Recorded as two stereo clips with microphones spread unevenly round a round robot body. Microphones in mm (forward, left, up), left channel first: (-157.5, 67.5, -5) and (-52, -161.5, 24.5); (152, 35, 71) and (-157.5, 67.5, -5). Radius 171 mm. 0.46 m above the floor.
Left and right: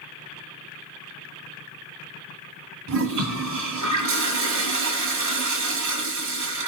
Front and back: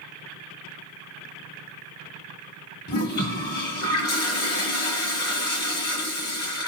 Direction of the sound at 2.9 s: 70° right.